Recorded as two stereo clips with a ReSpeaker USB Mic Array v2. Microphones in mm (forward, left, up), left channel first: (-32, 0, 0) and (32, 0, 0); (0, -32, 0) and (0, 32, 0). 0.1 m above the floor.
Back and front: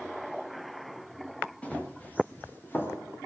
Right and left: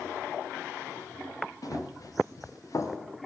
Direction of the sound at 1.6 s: 110° right.